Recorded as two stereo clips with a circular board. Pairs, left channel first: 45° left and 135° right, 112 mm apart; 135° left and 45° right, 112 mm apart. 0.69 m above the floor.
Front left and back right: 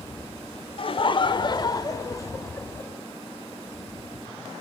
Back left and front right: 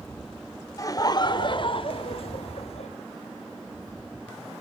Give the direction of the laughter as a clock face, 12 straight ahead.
9 o'clock.